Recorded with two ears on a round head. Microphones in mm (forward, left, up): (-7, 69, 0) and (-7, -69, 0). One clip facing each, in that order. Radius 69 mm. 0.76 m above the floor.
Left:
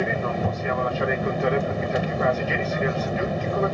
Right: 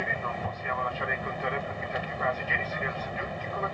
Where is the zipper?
I don't hear a zipper.